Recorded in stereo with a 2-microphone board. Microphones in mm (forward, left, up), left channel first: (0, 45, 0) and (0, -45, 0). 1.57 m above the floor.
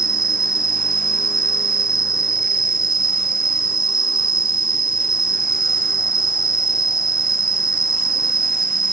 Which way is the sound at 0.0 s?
60° right (ahead or behind).